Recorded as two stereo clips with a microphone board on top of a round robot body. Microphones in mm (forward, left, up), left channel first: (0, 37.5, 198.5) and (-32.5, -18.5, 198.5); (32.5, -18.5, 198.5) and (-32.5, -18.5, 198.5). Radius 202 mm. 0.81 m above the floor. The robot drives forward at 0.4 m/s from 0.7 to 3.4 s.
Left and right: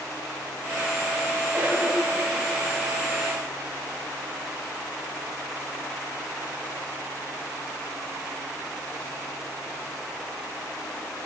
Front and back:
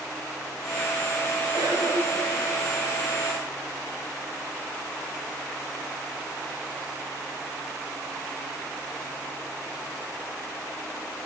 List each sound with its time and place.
1.5 s a cough: straight behind, 4.5 m